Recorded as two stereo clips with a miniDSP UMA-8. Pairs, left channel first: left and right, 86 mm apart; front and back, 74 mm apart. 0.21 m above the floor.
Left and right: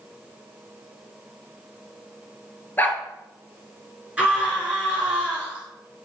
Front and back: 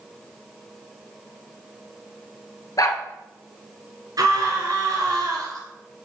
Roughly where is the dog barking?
Ahead left.